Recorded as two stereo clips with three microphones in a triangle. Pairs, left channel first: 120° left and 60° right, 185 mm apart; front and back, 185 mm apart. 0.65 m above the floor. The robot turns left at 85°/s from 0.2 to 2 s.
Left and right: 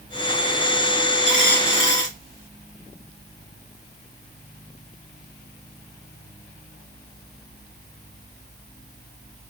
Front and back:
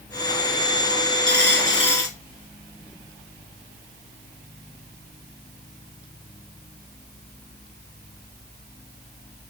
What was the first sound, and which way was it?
A dropped coin, 175° left.